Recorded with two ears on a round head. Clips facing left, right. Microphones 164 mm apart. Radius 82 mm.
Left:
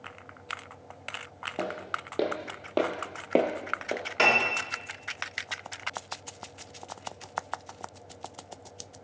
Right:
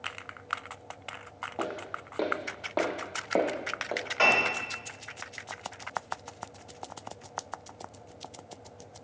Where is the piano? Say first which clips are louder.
Left 1 dB; 45° left (ahead or behind), 1.9 m.